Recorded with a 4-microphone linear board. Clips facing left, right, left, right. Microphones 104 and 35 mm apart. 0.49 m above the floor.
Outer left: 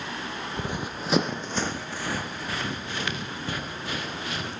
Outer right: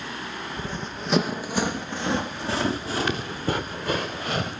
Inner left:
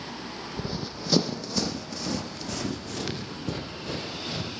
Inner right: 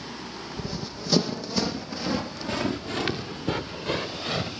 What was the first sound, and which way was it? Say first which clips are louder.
Running footsteps: outer left 3 dB, inner left 1 dB; 20° left (ahead or behind).